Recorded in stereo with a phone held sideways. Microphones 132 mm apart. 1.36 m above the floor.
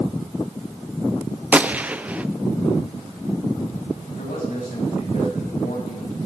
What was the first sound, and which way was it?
A gunshot, 10° right (ahead or behind).